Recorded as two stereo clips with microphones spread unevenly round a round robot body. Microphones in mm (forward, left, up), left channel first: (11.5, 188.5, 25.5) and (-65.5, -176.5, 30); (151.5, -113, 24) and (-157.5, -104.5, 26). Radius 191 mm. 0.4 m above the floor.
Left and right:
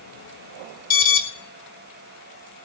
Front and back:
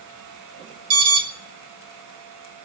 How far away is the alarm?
About 2.0 m.